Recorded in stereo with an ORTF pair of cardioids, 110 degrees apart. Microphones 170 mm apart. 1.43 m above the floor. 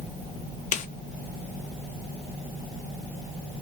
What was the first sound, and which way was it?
A snare drum, 50° left.